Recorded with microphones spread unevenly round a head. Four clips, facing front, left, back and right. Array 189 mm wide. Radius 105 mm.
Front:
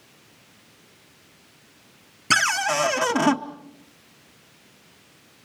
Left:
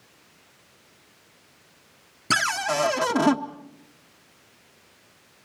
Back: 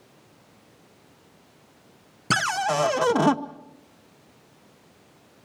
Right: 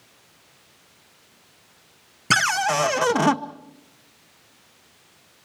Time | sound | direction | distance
2.3 | a cupboard door | 135° right | 0.8 m